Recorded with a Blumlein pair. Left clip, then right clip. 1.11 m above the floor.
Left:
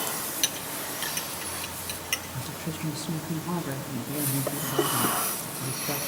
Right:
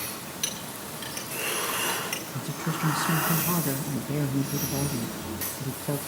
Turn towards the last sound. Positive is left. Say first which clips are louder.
# right 3 dB
turn(degrees=-10)